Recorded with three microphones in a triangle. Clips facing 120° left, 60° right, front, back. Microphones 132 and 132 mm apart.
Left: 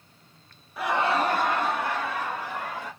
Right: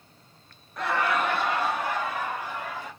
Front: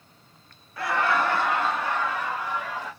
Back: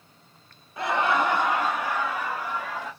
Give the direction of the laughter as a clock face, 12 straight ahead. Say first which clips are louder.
Left 2 dB, back 1 dB; 5 o'clock.